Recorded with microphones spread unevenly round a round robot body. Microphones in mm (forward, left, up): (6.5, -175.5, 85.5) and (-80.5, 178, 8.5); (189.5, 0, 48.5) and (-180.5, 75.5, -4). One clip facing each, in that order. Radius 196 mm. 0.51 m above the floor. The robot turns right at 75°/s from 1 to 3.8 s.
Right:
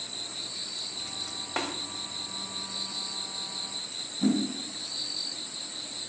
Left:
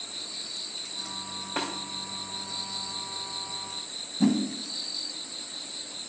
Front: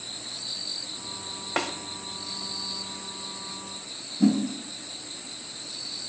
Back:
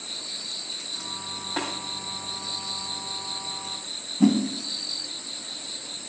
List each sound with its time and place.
1.6 s a snare drum: 5° left, 2 m; by 1.7 s 15° left, 2 m
4.2 s a whoosh: 100° left, 2.5 m